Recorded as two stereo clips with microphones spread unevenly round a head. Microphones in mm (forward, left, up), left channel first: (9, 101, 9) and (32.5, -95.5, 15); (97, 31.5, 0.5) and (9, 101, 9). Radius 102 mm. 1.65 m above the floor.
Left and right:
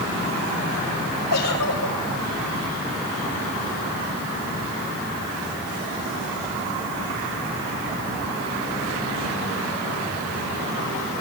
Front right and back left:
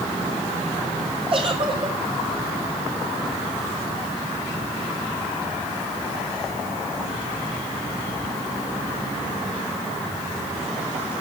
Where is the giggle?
105° left, 5 m.